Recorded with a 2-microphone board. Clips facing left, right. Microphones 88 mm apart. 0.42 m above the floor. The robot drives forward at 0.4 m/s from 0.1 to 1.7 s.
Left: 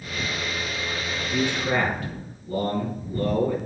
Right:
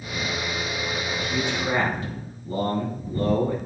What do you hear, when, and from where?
1.2 s a man speaking: 30° right (ahead or behind), 3.5 m; by 3.6 s 25° right (ahead or behind), 4 m